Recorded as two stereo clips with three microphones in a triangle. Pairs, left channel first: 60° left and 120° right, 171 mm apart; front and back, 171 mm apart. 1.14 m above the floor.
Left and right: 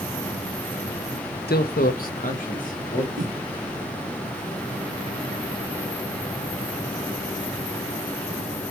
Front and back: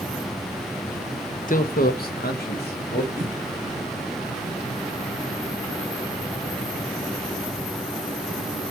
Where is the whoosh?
135° right, 1.7 m.